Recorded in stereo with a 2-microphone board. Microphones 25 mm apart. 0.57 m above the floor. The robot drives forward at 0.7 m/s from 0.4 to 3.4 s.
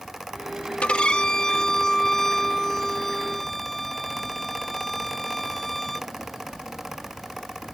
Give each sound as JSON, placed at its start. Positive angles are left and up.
{"t": 0.8, "sound": "a violin", "side_deg": 50}